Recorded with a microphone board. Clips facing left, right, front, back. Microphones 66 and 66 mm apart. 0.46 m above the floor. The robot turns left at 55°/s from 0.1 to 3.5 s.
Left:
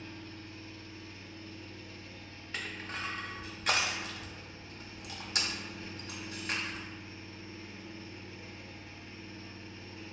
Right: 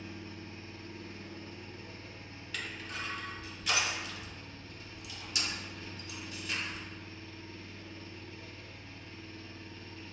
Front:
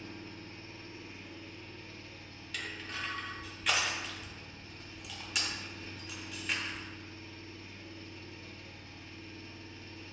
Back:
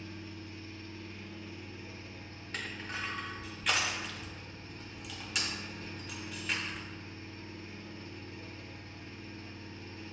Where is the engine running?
15° right, 0.7 m; by 10.1 s 155° left, 0.7 m.